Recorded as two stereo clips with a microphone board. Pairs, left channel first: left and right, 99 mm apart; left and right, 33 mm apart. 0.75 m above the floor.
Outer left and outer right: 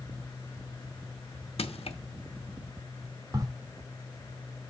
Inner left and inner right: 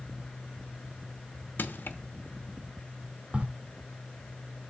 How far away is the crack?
About 1.1 m.